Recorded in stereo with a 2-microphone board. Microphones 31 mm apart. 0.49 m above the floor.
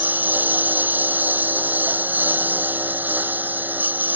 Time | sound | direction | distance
0.0 | a lawn mower | 65° right (ahead or behind) | ?